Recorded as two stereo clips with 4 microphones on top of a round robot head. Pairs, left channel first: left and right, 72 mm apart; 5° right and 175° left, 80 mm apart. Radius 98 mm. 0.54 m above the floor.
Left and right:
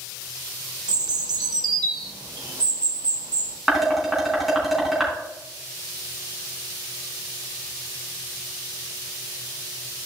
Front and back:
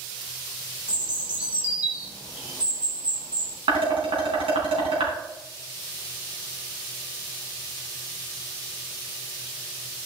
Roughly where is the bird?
Right.